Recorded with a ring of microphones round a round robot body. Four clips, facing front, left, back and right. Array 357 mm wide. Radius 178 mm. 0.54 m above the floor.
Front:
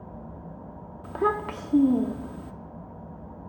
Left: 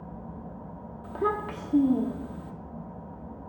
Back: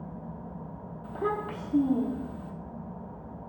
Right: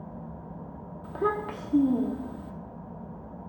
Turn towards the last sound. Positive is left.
turn(degrees=0)